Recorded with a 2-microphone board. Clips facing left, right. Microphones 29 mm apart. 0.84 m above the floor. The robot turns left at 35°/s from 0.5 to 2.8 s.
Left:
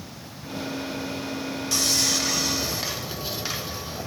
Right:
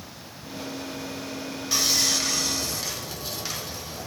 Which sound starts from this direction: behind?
Sawing, at 1.7 s.